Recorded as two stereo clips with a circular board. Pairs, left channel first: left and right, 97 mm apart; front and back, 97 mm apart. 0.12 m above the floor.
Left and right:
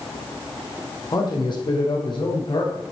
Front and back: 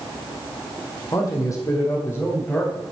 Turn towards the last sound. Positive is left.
turn(degrees=70)